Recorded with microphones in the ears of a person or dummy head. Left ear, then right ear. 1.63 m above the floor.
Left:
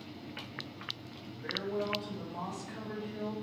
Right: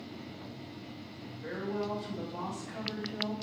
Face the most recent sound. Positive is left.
turn(degrees=-20)  # may be behind; listen again after turning